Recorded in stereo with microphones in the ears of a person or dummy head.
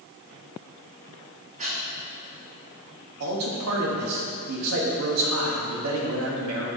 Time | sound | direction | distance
1.6 | breathing | 40° right (ahead or behind) | 1.0 m
3.2 | a man speaking | 85° right | 1.2 m